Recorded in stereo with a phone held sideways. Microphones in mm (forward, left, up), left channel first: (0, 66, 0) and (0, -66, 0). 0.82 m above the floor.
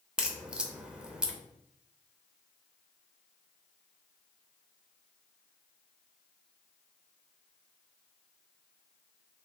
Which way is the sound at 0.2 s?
5° right (ahead or behind).